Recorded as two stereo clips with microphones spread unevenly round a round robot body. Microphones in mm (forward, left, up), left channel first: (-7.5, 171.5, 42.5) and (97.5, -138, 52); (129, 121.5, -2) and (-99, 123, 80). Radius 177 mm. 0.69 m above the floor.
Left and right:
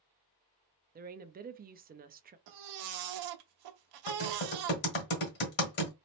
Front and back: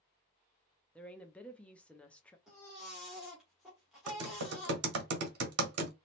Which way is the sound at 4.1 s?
170° left.